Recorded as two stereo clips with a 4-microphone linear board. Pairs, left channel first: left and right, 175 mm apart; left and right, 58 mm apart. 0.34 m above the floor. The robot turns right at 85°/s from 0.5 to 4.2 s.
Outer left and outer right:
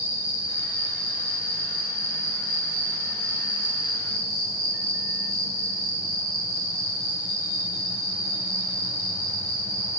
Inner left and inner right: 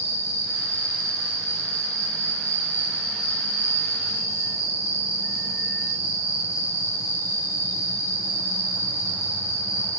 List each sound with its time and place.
0.0 s an insect: 130° left, 3.5 m; by 10.0 s 85° left, 3.5 m